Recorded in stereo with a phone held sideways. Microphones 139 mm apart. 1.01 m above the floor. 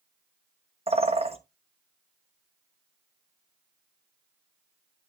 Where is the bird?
45° right (ahead or behind), 1.0 m.